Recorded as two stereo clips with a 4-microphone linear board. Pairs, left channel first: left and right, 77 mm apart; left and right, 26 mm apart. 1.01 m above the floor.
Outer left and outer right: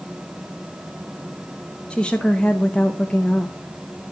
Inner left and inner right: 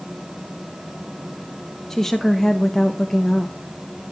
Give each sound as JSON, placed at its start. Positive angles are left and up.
{"t": 1.9, "sound": "a woman speaking", "side_deg": 15, "distance_m": 0.9}